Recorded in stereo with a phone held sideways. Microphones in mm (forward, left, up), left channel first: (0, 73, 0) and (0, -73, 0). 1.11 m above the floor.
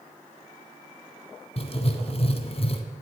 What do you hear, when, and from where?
1.6 s writing: 45° left (ahead or behind), 1.4 m